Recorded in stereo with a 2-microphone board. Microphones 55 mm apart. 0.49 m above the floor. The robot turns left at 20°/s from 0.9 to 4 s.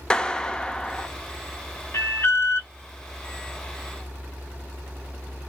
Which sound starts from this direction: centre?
A clap, at 0.1 s.